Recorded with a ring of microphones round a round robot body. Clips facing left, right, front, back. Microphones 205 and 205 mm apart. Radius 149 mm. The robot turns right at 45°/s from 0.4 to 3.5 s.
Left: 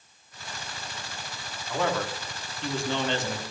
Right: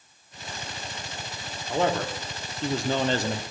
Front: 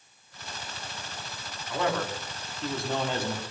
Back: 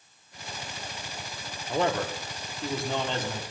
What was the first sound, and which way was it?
A man speaking, 145° right.